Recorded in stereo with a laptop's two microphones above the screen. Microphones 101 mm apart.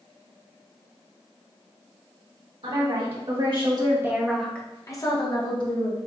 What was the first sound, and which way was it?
A woman speaking, 70° right (ahead or behind).